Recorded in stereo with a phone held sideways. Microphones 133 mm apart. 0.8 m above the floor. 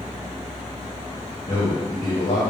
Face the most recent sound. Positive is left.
turn(degrees=55)  # may be behind; listen again after turning